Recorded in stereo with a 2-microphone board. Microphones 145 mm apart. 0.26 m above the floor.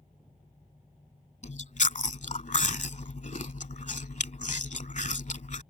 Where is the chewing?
60° left (ahead or behind).